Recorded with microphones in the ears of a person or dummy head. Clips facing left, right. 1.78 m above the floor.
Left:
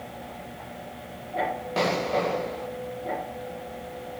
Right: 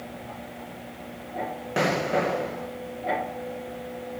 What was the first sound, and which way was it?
An explosion, 15° right (ahead or behind).